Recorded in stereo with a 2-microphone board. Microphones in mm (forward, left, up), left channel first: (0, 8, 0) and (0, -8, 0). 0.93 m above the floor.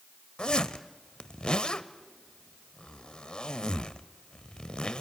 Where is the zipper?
55° left (ahead or behind), 0.9 m.